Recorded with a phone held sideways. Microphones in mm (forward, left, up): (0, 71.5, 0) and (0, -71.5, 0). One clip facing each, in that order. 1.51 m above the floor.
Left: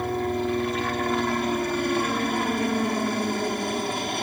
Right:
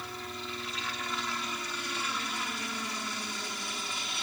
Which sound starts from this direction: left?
A helicopter, at 0.0 s.